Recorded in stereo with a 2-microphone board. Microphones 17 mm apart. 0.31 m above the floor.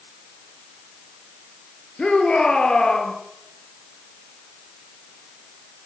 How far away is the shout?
About 6 m.